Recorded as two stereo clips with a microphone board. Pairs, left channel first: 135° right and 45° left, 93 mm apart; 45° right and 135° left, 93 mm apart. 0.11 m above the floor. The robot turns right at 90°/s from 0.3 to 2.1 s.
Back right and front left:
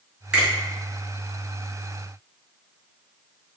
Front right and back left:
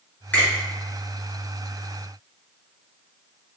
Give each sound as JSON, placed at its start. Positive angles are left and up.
{"t": 0.3, "sound": "a finger snap", "azimuth_deg": -20, "distance_m": 1.5}